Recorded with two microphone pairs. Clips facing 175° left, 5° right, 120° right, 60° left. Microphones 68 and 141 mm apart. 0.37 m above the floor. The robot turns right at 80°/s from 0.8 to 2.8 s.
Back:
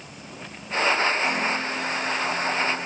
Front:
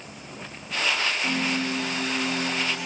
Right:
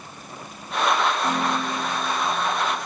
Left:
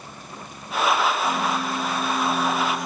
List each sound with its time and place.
1.2 s a piano: 40° right, 10 m; by 2.9 s 85° left, 10 m